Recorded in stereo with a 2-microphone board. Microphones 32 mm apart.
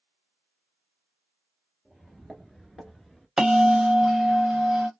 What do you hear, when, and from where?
1.9 s footsteps: 5° right (ahead or behind), 1.4 m; by 3.3 s 5° left (ahead or behind), 1.0 m
3.4 s a bell: 15° right (ahead or behind), 0.5 m